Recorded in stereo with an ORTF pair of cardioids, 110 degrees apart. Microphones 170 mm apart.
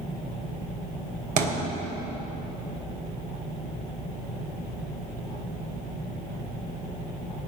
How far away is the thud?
About 2.5 m.